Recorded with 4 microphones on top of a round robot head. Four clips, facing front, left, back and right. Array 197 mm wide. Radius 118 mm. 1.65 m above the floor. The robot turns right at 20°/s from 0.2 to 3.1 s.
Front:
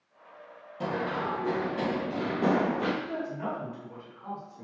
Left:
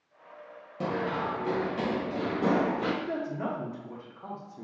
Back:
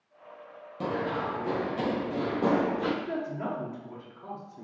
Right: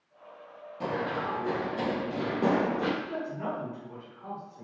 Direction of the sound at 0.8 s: 115° left.